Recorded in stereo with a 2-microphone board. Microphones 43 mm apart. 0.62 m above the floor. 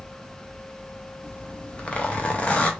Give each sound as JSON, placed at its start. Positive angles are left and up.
{"t": 1.2, "sound": "a zipper", "side_deg": 25, "distance_m": 0.7}